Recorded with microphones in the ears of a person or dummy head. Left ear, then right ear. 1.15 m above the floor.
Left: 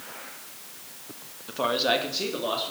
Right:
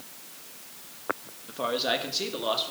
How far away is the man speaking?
About 1.3 m.